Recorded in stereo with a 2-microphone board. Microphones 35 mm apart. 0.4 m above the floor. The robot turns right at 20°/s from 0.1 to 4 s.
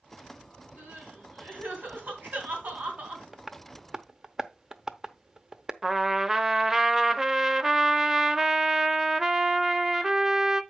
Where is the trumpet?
15° right (ahead or behind), 0.7 m.